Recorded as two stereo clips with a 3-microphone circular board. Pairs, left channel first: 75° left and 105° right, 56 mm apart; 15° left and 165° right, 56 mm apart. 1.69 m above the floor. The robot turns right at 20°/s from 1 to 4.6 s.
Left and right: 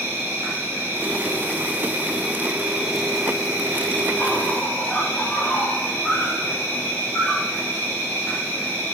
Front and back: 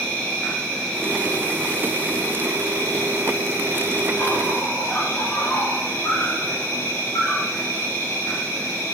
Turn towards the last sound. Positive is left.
turn(degrees=15)